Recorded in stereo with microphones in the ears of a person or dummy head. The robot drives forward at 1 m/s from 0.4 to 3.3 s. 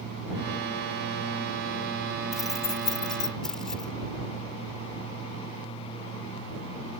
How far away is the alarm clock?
I don't hear an alarm clock.